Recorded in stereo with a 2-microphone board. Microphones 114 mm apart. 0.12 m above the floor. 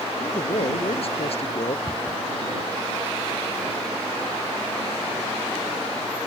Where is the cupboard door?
30° left (ahead or behind).